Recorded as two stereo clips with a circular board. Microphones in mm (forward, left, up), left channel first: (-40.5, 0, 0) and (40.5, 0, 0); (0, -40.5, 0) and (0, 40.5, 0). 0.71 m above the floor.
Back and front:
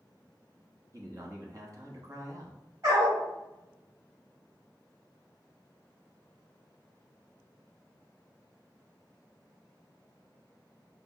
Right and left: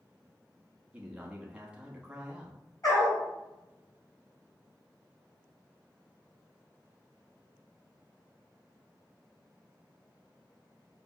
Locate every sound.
0.9 s a man speaking: 15° left, 0.8 m
2.8 s a dog barking: 45° right, 2.0 m